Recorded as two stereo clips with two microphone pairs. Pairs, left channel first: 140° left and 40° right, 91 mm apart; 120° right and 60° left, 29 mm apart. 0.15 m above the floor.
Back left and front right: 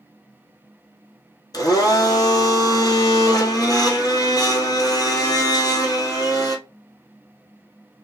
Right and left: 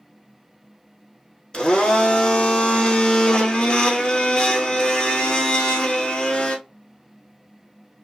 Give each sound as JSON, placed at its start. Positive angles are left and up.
{"t": 1.5, "sound": "a blender", "azimuth_deg": -175, "distance_m": 1.2}